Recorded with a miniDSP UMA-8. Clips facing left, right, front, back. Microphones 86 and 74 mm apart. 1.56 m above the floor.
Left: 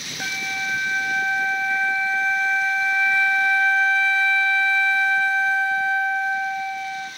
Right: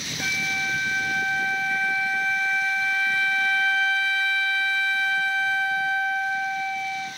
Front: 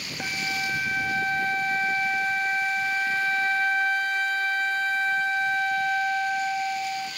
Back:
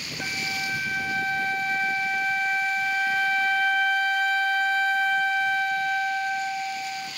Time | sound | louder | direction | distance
0.2 | a flute | even, front 1 dB | 35° left | 1.1 m